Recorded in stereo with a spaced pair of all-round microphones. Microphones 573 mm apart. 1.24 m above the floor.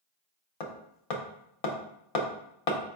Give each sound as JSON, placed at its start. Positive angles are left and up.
{"t": 0.6, "sound": "hammering", "side_deg": 75, "distance_m": 0.8}